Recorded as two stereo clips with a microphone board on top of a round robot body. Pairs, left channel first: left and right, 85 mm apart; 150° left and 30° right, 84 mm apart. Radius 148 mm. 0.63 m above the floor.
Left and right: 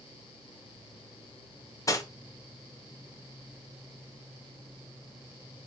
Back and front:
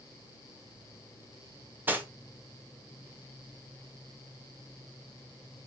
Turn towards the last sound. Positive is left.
turn(degrees=40)